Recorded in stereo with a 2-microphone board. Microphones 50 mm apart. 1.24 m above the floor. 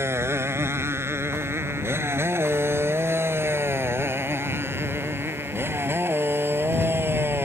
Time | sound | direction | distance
0.0 | a motorcycle | 60° right (ahead or behind) | ?